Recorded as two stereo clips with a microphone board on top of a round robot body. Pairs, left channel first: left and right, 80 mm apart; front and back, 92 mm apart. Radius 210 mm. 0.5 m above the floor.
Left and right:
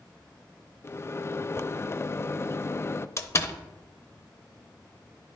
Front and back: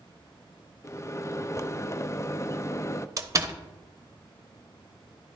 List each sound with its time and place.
0.8 s a microwave: 45° left, 0.6 m
3.2 s a door slam: 135° left, 0.9 m